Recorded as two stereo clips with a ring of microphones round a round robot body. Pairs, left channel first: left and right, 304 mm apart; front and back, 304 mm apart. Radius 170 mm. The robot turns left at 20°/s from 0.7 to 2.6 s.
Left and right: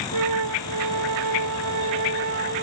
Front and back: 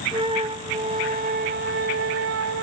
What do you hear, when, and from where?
0.1 s a flute: 110° right; by 2.6 s 145° right